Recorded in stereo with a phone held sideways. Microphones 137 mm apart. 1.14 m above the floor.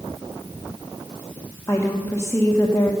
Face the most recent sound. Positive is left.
turn(degrees=20)  # may be behind; listen again after turning